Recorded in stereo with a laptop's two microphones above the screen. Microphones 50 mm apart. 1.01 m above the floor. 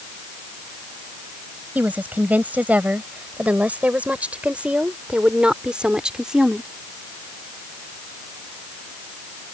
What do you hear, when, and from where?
1.8 s a woman speaking: 35° right (ahead or behind); by 6.7 s 10° right (ahead or behind)